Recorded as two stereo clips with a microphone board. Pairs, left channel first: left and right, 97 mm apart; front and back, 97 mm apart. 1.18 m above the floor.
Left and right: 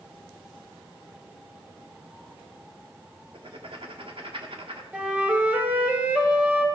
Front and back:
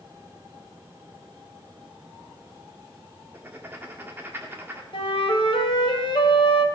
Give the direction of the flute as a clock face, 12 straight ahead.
1 o'clock.